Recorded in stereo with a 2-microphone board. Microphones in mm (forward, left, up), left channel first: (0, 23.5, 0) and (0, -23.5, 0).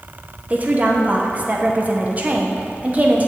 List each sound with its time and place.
0.5 s a woman speaking: 35° right (ahead or behind), 1.1 m